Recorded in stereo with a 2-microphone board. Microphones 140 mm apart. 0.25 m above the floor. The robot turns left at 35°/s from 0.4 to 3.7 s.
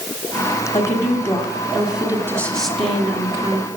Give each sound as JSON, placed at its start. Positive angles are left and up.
{"t": 0.7, "sound": "a woman speaking", "azimuth_deg": 35, "distance_m": 1.7}